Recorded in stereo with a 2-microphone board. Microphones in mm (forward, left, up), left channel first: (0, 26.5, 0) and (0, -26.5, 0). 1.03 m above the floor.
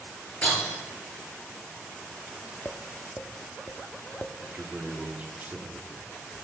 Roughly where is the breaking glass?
Left.